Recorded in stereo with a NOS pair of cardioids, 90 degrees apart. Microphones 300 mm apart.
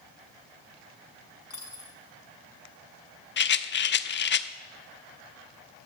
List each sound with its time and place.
1.5 s a dropped coin: 50° left, 5.5 m
3.4 s a rattle: 40° left, 0.9 m